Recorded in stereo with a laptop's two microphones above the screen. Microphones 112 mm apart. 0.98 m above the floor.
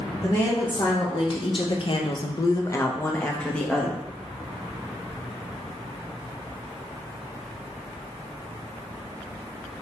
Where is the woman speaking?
35° left (ahead or behind), 1.1 m; by 4.0 s 5° left (ahead or behind), 1.2 m.